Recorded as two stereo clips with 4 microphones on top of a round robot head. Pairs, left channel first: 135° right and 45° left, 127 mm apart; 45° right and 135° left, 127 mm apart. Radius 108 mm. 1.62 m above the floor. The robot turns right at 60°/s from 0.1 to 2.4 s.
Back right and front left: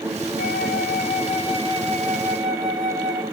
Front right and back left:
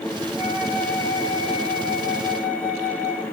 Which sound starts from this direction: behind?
A flute, at 0.4 s.